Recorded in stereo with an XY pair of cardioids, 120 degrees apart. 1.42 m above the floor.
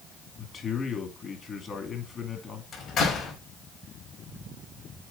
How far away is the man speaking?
About 2.5 m.